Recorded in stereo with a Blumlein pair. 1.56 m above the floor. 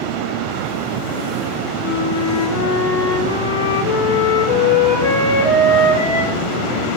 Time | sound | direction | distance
1.8 | a flute | 55° left | 4 m